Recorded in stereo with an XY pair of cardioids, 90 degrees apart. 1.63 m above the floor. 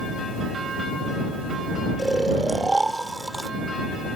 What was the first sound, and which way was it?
Snoring, 15° right.